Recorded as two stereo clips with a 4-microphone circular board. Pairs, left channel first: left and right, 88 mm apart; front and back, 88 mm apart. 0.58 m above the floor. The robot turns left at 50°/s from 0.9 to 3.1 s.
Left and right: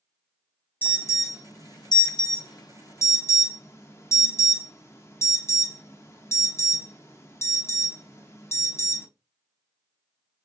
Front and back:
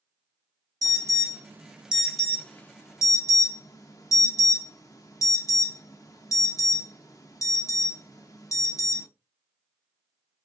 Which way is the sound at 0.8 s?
150° left.